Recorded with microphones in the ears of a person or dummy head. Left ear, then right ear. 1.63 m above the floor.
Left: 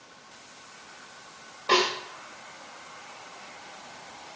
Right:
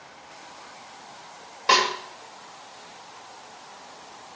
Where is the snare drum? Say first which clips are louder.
Right 3 dB; 70° right (ahead or behind), 8.5 m.